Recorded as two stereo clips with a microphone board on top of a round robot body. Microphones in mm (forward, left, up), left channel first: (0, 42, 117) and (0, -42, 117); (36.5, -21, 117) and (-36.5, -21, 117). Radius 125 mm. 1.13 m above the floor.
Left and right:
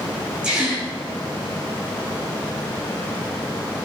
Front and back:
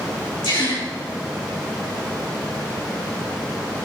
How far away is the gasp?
About 6 m.